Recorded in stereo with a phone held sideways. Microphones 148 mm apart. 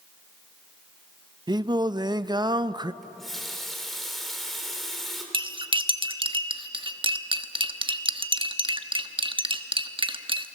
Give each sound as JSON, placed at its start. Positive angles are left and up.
{"t": 1.5, "sound": "singing", "side_deg": -30, "distance_m": 0.5}
{"t": 3.0, "sound": "a running tap", "side_deg": 0, "distance_m": 3.0}
{"t": 5.3, "sound": "cutlery clinking", "side_deg": -35, "distance_m": 1.0}